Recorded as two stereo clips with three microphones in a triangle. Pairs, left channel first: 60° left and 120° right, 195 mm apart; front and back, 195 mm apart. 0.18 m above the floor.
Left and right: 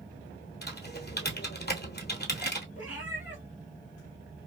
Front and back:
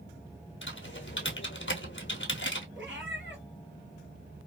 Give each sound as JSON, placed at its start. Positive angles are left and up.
{"t": 0.6, "sound": "typing on a keyboard", "azimuth_deg": 20, "distance_m": 0.9}
{"t": 2.8, "sound": "a cat meowing", "azimuth_deg": 160, "distance_m": 1.4}